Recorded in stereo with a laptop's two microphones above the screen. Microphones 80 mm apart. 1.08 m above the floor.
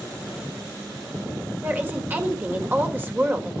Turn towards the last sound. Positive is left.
turn(degrees=-25)  # may be behind; listen again after turning